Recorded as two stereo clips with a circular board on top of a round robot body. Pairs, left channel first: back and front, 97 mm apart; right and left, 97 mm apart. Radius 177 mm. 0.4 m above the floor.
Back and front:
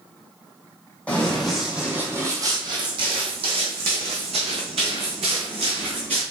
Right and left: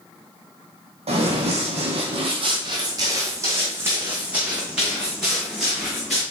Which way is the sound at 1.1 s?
105° left.